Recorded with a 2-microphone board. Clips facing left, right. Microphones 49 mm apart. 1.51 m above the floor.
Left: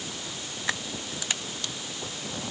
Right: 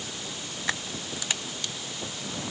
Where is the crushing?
I don't hear crushing.